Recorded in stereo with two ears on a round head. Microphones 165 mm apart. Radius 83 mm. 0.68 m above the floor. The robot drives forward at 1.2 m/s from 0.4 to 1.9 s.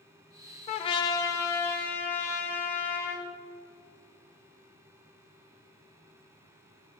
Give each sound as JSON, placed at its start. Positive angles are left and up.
{"t": 0.7, "sound": "a trumpet", "side_deg": 35, "distance_m": 0.7}